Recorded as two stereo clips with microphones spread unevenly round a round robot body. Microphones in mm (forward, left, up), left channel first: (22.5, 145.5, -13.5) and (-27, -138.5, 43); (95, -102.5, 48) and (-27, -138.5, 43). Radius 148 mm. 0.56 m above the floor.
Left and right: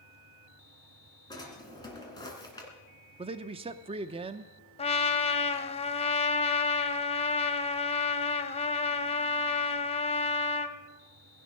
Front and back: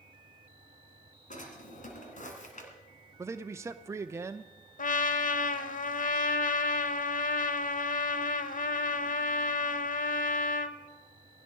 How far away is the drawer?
About 2.5 m.